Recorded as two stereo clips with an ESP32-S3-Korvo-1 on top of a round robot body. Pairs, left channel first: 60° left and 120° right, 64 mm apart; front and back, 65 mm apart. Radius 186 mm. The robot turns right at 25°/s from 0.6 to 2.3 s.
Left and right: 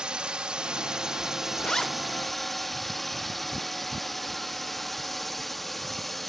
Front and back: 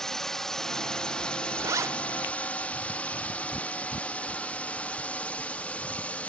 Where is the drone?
70° right; by 6.3 s 30° right.